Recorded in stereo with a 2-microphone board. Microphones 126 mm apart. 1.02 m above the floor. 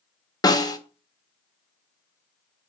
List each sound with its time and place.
0.4 s a snare drum: 30° left (ahead or behind), 0.7 m